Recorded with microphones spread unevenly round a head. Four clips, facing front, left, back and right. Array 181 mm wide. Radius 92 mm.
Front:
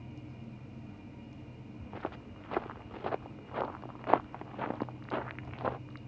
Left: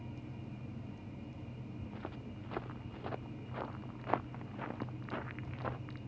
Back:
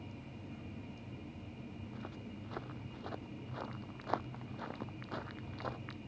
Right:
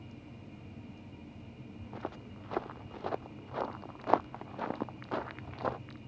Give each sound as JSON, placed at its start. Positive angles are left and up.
{"t": 1.8, "sound": "footsteps", "azimuth_deg": -40}